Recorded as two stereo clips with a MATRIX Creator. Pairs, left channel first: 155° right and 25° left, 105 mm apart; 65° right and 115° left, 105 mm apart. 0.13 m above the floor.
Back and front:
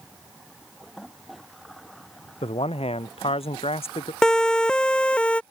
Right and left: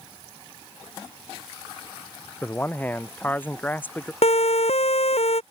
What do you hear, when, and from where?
2.4 s a man speaking: 140° right
4.2 s a siren: 75° right; by 5.4 s 80° right